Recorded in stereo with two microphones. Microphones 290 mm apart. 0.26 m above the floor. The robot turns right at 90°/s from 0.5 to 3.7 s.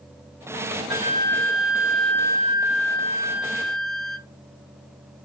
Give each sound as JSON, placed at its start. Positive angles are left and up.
{"t": 0.9, "sound": "a flute", "azimuth_deg": -165, "distance_m": 0.7}